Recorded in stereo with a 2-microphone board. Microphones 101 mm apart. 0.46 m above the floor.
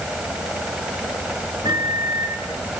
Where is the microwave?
50° right (ahead or behind), 4 m.